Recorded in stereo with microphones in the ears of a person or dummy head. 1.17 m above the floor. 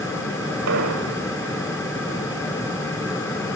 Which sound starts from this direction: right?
An explosion, at 0.7 s.